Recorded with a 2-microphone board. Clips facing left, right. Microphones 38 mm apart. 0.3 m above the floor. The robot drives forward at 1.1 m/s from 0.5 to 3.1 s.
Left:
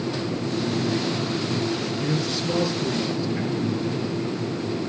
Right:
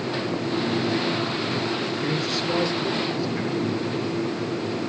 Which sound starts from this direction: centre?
A man speaking, at 2.0 s.